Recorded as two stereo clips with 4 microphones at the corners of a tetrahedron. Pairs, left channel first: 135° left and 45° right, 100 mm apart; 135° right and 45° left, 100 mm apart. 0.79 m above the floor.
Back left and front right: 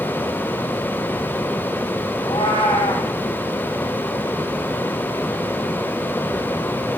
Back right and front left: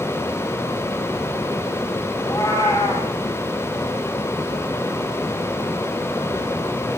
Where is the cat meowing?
170° left, 8 m.